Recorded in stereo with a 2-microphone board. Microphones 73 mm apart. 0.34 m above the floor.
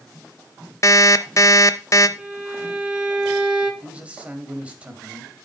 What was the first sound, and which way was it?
An alarm clock, 40° left (ahead or behind).